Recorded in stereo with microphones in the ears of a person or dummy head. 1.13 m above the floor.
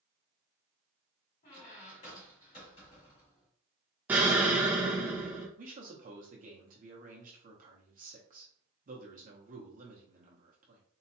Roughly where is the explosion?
Centre.